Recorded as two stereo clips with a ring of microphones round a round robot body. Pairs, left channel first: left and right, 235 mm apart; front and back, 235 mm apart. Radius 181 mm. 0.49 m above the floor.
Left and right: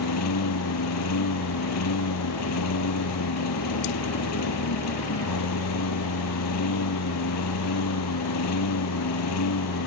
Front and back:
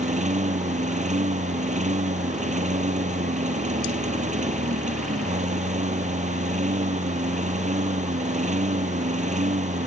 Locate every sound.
0.0 s a lawn mower: 120° left